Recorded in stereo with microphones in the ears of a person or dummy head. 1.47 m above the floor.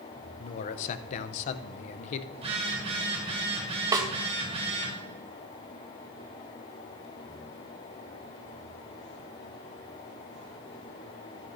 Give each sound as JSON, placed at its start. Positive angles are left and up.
{"t": 0.4, "sound": "a man speaking", "side_deg": 50, "distance_m": 0.6}
{"t": 2.3, "sound": "a phone buzzing", "side_deg": -25, "distance_m": 1.8}
{"t": 3.9, "sound": "a snare drum", "side_deg": -15, "distance_m": 0.9}